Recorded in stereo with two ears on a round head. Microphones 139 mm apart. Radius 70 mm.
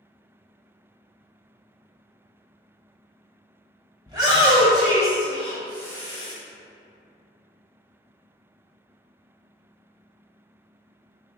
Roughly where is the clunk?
No clunk in this recording.